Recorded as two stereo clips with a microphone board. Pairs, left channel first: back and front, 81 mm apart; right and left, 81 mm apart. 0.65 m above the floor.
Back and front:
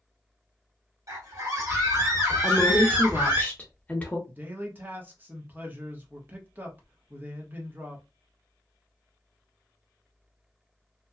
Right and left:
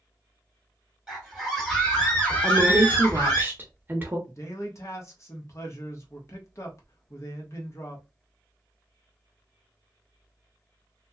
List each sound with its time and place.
1.1 s a scream: 10° left, 1.5 m; by 3.4 s 45° right, 1.9 m
2.4 s a woman speaking: 125° left, 0.9 m
4.3 s a man speaking: 55° right, 0.9 m